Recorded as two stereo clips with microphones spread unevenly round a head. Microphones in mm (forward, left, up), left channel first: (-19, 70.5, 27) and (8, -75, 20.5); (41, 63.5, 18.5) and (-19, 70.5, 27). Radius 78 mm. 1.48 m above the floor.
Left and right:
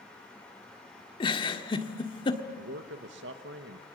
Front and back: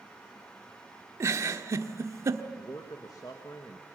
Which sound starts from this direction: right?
A man speaking, at 2.6 s.